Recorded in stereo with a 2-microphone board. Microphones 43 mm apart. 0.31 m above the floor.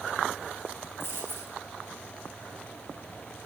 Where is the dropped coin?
55° left (ahead or behind), 5 m.